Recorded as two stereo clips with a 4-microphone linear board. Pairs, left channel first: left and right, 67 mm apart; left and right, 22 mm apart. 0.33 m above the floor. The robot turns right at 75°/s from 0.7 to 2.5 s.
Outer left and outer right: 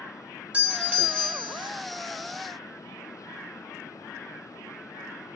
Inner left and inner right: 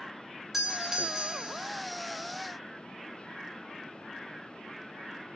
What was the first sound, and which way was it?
A doorbell, 20° right (ahead or behind).